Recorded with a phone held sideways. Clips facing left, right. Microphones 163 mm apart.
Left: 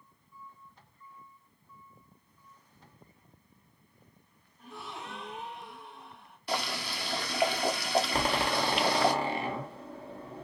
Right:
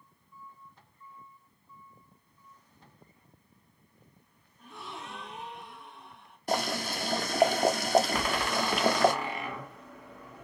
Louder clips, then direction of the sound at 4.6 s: Left 1 dB; 5° left (ahead or behind).